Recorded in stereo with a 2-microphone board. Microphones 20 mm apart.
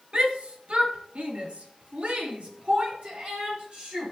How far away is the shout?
About 2.5 m.